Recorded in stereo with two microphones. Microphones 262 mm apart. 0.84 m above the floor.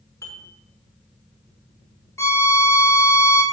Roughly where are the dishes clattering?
Centre.